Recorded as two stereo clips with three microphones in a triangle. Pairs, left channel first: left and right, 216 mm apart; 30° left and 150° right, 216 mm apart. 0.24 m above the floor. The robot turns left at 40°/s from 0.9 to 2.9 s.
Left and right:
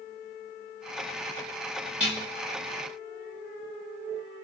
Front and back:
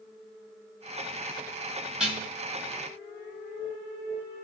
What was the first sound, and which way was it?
Dishes clattering, 65° right.